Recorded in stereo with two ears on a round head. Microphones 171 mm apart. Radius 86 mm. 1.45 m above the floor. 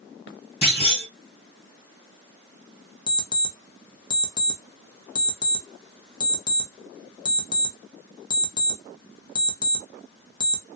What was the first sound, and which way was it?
A clunk, 35° left (ahead or behind).